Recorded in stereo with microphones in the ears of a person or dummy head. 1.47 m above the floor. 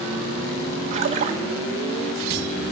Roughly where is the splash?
Right.